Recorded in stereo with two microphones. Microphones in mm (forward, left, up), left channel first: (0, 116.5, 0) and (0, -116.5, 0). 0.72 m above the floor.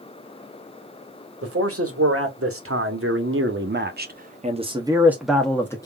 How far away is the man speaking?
About 1.9 m.